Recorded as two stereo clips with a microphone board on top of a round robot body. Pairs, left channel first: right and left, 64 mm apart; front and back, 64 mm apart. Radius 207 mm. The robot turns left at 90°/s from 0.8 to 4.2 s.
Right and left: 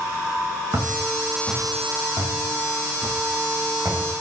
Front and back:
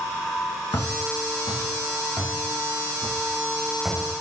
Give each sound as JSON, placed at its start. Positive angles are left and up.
{"t": 0.7, "sound": "footsteps", "azimuth_deg": 40, "distance_m": 2.5}